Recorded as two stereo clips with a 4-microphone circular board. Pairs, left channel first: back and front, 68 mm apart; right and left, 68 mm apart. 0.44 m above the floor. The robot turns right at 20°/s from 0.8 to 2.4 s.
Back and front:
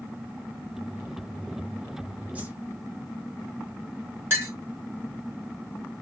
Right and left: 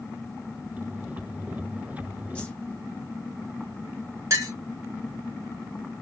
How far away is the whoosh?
About 0.6 m.